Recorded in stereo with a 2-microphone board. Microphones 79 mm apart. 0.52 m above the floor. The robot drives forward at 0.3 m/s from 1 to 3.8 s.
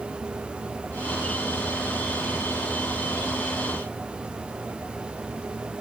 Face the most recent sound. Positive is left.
No sound to turn to.